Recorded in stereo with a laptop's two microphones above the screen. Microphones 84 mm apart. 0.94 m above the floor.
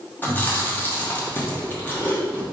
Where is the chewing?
25° left (ahead or behind), 0.9 m.